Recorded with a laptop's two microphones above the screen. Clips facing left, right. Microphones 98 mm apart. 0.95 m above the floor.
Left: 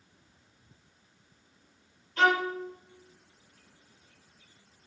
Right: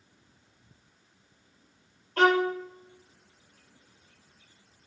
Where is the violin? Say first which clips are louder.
Right 3 dB; 60° right (ahead or behind), 4 m.